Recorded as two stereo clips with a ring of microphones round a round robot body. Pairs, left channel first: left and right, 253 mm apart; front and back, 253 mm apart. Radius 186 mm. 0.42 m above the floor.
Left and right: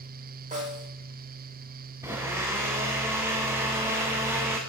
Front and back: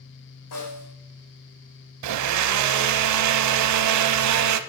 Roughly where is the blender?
Behind.